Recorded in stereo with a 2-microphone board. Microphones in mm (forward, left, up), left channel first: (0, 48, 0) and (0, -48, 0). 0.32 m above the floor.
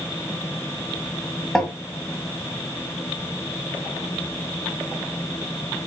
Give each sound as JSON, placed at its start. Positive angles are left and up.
{"t": 1.6, "sound": "tapping", "side_deg": 10, "distance_m": 1.1}